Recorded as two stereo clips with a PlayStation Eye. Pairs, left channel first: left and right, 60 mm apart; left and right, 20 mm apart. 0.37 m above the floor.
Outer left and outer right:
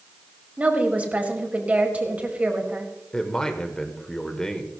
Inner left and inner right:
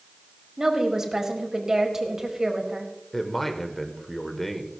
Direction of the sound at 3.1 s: 10° left (ahead or behind).